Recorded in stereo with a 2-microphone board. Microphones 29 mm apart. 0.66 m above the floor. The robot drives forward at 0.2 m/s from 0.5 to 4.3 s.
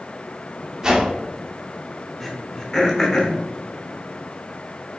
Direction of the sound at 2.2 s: 15° left (ahead or behind).